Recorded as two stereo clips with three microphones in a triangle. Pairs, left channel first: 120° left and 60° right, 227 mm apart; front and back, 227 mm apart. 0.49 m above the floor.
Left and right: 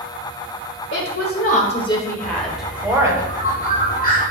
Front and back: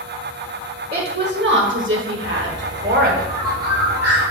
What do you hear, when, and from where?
0.9 s a woman speaking: 140° left, 1.4 m; by 3.2 s 135° right, 1.9 m
2.2 s a bird: 175° left, 2.5 m